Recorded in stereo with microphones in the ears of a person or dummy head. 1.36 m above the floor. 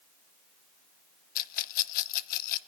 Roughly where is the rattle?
Left.